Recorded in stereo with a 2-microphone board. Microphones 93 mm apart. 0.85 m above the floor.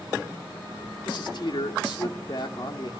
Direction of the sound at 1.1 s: 55° left (ahead or behind).